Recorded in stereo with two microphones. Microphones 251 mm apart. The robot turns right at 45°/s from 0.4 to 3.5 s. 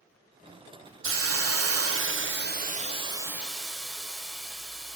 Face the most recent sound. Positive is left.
turn(degrees=0)